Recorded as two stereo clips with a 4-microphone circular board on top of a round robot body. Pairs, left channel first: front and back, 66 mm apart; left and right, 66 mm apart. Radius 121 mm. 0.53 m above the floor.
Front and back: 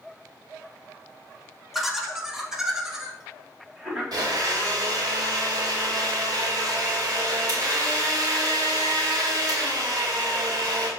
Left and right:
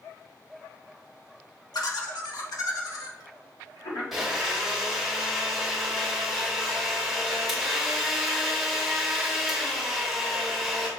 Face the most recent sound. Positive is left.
turn(degrees=180)